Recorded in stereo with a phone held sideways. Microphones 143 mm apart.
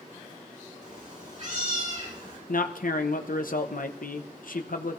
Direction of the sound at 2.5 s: 75° left (ahead or behind).